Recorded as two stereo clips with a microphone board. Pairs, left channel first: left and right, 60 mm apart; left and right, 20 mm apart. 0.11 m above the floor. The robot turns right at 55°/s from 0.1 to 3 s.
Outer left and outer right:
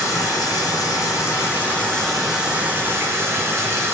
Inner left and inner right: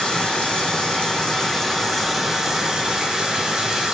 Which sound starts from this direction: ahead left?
Running water, at 0.0 s.